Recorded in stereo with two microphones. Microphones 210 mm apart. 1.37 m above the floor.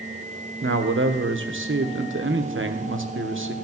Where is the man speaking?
70° right (ahead or behind), 1.1 m.